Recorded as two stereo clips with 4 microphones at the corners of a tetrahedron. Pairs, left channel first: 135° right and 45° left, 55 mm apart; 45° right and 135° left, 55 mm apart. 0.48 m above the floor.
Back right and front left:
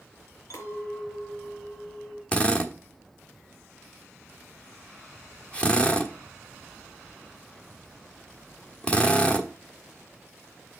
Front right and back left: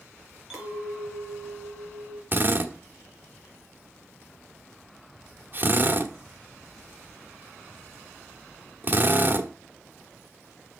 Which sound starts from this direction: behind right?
A clink, at 0.5 s.